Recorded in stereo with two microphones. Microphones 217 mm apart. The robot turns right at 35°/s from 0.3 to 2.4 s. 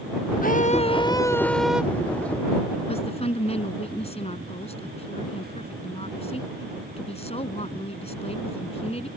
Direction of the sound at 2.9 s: 30° left (ahead or behind).